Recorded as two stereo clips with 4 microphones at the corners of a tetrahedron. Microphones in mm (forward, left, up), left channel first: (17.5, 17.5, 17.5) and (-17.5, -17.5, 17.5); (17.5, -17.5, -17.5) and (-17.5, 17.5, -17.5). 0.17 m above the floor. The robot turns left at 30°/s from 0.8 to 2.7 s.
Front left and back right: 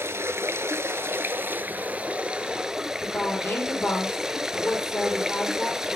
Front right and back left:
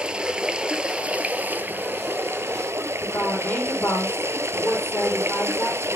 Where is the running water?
155° right, 0.9 m; by 6.0 s 145° left, 0.9 m.